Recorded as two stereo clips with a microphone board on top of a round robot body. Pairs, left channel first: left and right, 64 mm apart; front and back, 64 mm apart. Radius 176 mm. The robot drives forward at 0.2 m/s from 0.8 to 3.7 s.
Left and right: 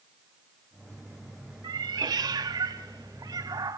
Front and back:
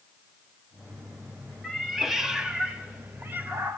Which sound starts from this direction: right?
A cat meowing, at 1.6 s.